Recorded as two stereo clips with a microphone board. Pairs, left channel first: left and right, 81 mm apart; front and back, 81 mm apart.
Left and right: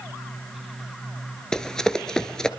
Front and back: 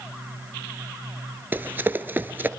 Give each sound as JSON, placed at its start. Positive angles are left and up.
{"t": 1.5, "sound": "running footsteps", "azimuth_deg": 160, "distance_m": 0.9}